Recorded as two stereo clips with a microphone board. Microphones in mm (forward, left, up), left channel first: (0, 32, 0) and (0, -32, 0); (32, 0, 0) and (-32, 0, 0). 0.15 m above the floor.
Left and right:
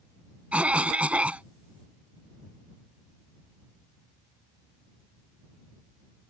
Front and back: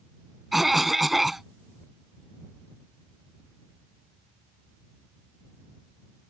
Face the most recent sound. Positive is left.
turn(degrees=-100)